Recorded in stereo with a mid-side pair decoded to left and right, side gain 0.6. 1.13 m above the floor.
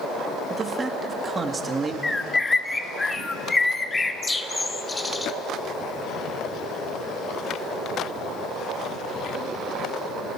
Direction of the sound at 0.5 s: 25° right.